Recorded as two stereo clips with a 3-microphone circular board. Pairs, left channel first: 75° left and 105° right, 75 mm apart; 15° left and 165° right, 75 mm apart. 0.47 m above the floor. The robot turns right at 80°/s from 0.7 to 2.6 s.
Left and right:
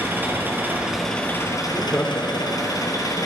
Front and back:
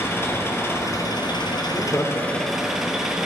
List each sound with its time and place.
0.0 s an engine running: 40° right, 2.5 m; by 3.3 s 110° left, 2.5 m
1.6 s laughter: 5° left, 1.5 m; by 2.9 s 80° left, 1.5 m